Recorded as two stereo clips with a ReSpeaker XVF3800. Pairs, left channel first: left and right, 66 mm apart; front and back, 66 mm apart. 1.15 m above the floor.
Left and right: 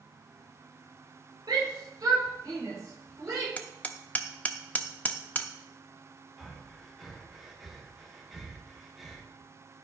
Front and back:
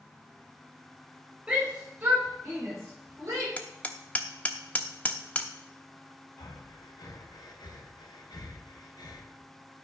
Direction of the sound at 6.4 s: Straight ahead.